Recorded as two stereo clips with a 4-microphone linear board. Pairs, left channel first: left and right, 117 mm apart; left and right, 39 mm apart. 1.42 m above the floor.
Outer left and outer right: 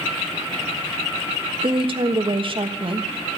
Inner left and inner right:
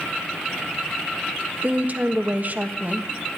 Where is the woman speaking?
45° right (ahead or behind), 1.4 m.